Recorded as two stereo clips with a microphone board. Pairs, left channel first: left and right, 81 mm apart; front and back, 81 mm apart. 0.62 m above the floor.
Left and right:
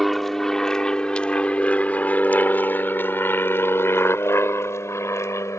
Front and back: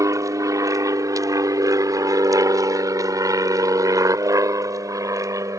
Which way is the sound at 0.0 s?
Straight behind.